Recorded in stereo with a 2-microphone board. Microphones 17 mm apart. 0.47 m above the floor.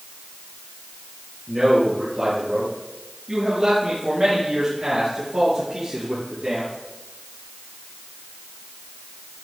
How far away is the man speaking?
About 7 m.